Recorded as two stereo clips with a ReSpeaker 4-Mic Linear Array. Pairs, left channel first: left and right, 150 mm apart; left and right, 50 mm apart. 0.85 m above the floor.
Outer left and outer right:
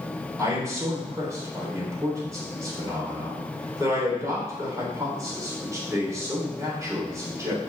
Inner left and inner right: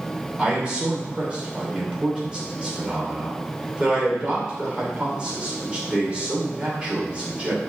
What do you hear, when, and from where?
0.4 s a man speaking: 20° right (ahead or behind), 3 m